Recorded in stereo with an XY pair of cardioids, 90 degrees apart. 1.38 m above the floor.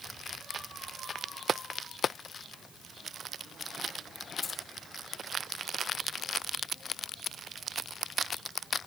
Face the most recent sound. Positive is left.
turn(degrees=45)